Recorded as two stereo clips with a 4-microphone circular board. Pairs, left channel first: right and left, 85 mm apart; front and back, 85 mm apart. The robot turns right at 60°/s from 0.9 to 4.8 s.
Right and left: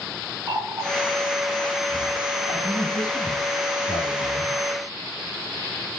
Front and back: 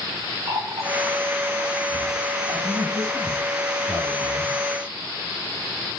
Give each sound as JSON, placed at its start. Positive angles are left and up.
{"t": 0.5, "sound": "a running tap", "azimuth_deg": 145, "distance_m": 9.5}
{"t": 2.6, "sound": "a man speaking", "azimuth_deg": -150, "distance_m": 4.5}